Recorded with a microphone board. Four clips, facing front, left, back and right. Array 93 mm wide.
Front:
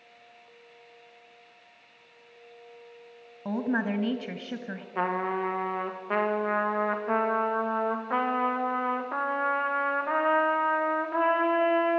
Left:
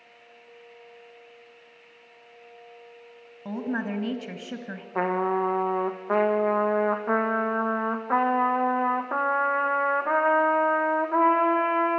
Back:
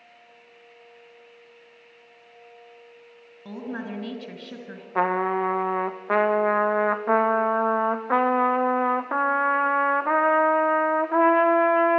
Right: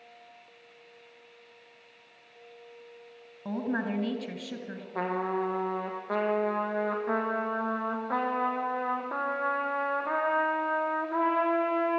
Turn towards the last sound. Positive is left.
turn(degrees=160)